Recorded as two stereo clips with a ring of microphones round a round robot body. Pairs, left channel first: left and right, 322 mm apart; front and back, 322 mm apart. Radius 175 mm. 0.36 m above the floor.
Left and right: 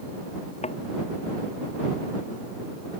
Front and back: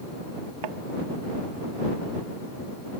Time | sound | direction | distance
0.6 | a thud | 160° left | ?